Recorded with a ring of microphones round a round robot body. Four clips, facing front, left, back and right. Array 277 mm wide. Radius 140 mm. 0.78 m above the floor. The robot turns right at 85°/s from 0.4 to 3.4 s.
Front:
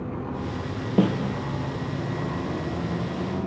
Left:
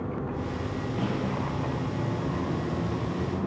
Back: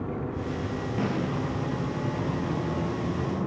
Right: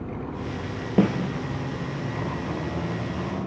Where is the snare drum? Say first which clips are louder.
Right 10 dB, front 8 dB; 50° right, 3 m; by 1.2 s 30° right, 3 m.